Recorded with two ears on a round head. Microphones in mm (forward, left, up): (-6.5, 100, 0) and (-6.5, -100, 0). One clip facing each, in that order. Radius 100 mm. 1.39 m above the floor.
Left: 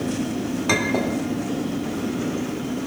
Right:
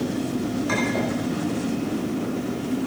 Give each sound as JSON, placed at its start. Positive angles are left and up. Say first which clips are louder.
{"t": 0.7, "sound": "a clink", "louder": "left 1 dB", "side_deg": 80, "distance_m": 2.0}